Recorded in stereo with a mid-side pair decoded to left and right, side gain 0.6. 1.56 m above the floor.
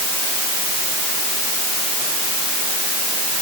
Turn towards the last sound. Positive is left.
No sound to turn to.